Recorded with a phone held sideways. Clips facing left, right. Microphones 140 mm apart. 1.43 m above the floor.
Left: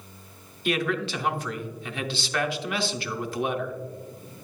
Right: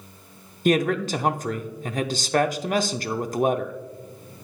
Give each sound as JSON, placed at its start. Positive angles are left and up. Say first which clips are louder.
{"t": 0.7, "sound": "a man speaking", "louder": "right 6 dB", "side_deg": -40, "distance_m": 0.5}